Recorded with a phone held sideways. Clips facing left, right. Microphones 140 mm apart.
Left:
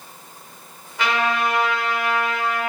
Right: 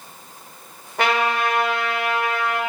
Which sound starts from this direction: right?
A trumpet, at 1.0 s.